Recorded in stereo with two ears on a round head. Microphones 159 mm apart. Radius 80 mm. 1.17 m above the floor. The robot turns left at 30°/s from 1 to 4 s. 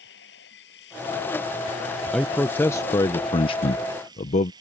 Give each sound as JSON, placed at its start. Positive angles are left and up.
{"t": 0.0, "sound": "running water", "azimuth_deg": 65}
{"t": 2.1, "sound": "a man speaking", "azimuth_deg": 175}